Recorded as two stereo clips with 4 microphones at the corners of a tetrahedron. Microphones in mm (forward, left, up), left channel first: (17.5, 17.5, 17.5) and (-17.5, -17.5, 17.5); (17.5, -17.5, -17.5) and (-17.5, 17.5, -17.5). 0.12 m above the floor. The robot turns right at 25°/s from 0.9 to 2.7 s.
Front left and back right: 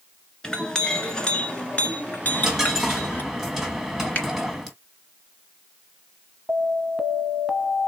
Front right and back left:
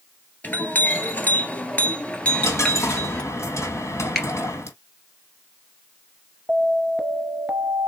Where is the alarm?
155° left, 0.9 m.